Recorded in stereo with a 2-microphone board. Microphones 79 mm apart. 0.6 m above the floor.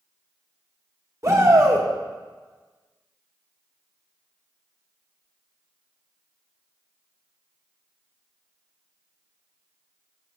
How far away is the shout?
About 1.5 m.